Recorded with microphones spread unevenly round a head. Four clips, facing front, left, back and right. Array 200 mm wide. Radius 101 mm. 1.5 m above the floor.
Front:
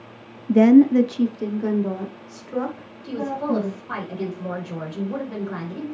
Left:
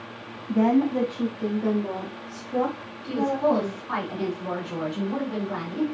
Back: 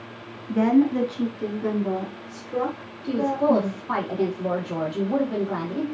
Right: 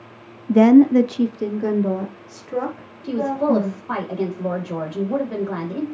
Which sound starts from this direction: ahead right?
A woman speaking, at 0.5 s.